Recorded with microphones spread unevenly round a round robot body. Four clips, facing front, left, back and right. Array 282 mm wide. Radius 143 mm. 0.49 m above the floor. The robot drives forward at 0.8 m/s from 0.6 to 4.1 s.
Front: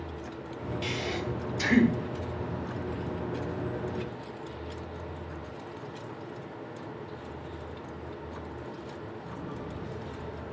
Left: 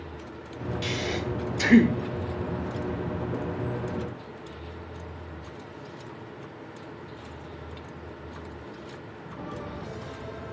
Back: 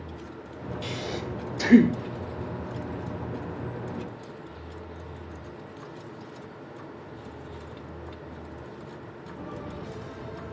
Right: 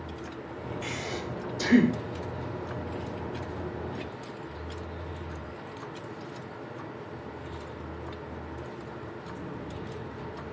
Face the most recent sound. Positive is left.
turn(degrees=175)